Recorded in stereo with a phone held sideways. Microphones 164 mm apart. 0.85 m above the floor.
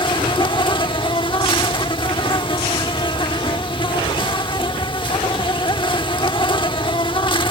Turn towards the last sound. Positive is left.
turn(degrees=30)  # may be behind; listen again after turning